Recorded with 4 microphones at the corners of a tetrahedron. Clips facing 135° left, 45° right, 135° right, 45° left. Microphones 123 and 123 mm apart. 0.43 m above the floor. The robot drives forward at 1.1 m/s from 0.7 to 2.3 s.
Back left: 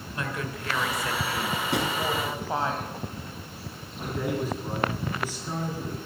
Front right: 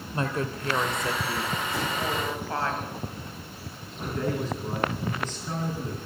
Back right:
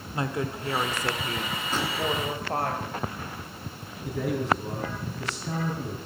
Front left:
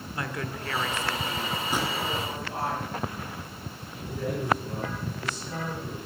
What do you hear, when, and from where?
0.1 s a woman speaking: 80° right, 1.1 m; by 2.7 s 155° right, 2.0 m
1.7 s a drawer: 125° left, 1.9 m; by 2.0 s 130° left, 2 m
4.0 s a man speaking: 145° right, 3.5 m